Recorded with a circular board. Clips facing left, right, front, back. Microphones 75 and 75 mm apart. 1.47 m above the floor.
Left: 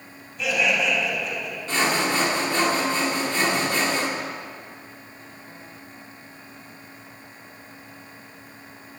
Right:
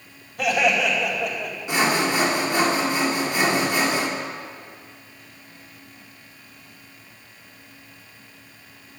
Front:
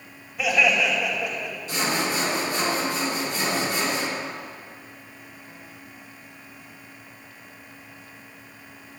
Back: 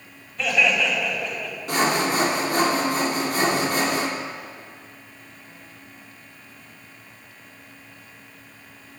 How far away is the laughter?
About 5 m.